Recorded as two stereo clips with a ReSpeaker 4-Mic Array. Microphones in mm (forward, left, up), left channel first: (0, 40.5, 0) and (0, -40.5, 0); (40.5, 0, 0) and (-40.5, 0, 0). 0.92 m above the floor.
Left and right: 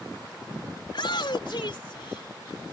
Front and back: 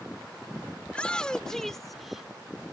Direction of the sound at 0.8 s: 75° left.